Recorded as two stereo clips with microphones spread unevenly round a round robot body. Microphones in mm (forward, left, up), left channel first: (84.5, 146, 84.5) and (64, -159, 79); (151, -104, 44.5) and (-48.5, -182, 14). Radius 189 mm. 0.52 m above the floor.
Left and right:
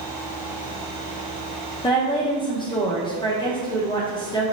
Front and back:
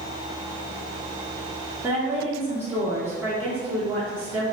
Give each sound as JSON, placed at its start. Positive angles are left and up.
{"t": 1.8, "sound": "a woman speaking", "azimuth_deg": 145, "distance_m": 0.7}